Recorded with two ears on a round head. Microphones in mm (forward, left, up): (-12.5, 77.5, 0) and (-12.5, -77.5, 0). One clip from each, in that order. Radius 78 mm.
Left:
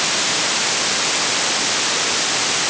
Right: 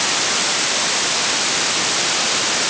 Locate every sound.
Only background noise.